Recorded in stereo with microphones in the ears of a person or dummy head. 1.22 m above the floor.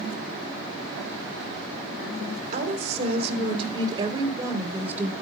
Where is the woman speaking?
50° right (ahead or behind), 3.5 m; by 5.1 s 15° right (ahead or behind), 3.5 m.